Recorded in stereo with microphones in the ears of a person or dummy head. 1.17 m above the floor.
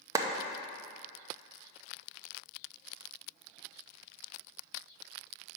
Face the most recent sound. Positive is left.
turn(degrees=-20)  # may be behind; listen again after turning